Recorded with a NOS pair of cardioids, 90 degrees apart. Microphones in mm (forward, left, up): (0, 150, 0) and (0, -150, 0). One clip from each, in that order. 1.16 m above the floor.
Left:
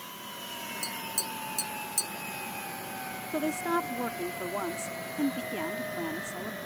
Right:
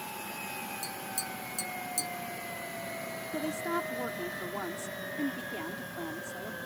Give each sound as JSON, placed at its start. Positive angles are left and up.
{"t": 0.8, "sound": "tapping", "azimuth_deg": 15}
{"t": 3.3, "sound": "a woman speaking", "azimuth_deg": 20}